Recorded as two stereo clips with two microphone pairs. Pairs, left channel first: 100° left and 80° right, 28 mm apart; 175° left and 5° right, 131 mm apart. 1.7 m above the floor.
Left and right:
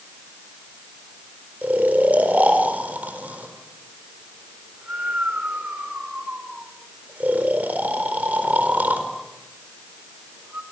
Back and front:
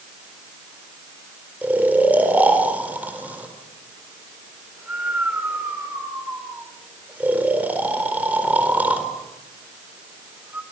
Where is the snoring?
85° right, 4 m.